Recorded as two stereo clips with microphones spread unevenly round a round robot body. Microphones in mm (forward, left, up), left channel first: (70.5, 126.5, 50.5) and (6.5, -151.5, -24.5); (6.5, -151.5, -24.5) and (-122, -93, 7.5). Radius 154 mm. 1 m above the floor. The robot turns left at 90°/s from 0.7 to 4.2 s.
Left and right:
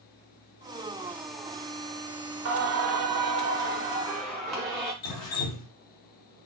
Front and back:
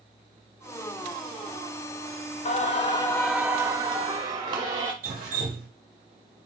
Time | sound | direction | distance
2.5 | singing | 55° right | 0.6 m
5.0 | dripping | 115° left | 0.7 m